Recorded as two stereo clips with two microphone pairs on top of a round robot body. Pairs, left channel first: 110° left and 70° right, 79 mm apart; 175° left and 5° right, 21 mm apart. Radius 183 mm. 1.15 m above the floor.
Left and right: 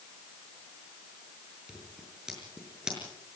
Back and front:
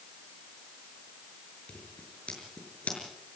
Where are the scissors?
155° right, 6 m.